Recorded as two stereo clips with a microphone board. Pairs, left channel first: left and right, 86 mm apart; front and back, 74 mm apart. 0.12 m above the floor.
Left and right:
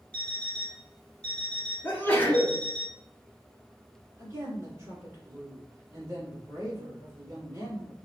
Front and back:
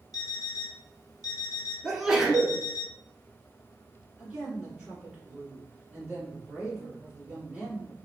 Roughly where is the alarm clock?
Ahead.